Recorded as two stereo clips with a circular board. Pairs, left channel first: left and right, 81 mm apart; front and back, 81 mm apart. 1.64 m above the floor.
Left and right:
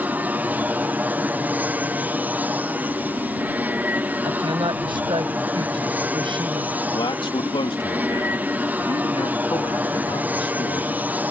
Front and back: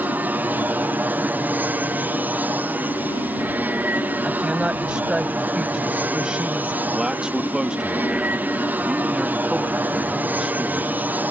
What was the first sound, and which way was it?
An aircraft, 135° right.